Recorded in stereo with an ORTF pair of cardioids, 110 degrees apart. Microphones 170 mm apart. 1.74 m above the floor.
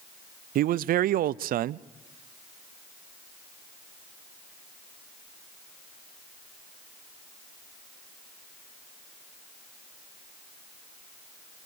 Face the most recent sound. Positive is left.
turn(degrees=-60)